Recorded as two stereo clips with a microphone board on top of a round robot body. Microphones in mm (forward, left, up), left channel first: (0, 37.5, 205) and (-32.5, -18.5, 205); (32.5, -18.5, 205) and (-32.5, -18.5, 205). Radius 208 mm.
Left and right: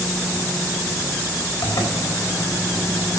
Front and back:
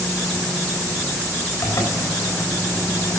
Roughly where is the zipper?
Ahead left.